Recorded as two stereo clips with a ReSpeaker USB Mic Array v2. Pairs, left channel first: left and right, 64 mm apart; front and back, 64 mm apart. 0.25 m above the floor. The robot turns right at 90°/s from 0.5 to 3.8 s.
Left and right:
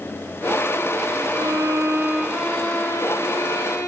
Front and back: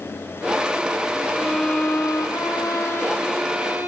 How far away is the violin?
About 4 m.